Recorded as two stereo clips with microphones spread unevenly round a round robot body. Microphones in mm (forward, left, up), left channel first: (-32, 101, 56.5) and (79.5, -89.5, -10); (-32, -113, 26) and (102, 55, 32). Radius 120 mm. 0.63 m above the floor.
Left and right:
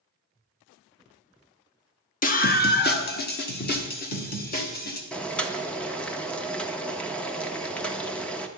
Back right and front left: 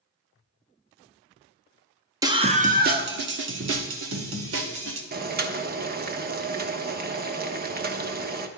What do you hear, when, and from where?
2.2 s a scream: 90° left, 1.1 m; by 5.0 s 65° left, 3 m
5.1 s boiling: 20° left, 1.1 m